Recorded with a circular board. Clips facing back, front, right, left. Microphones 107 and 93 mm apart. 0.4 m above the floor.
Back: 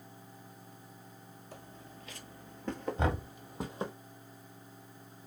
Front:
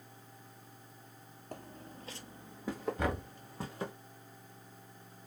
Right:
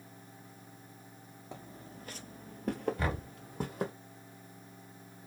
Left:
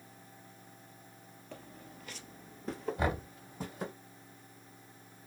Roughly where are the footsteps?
Ahead.